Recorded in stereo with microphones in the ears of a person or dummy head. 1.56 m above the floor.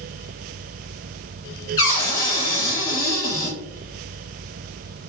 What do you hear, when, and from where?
1.8 s a cupboard door: 15° left (ahead or behind), 1.0 m